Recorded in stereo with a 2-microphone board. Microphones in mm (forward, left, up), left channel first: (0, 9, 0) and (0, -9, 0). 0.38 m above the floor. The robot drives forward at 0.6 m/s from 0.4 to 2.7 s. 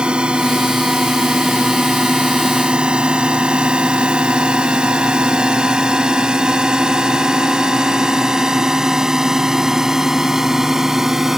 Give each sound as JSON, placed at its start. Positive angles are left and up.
{"t": 0.0, "sound": "a drone", "side_deg": -65}